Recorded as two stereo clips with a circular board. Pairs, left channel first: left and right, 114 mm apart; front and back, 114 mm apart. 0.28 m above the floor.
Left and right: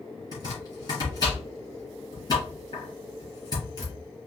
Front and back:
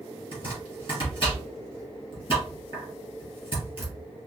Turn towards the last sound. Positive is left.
turn(degrees=45)